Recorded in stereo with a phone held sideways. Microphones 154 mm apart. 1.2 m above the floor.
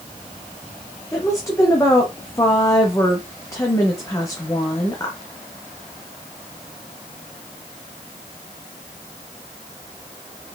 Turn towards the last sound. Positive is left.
turn(degrees=20)  # may be behind; listen again after turning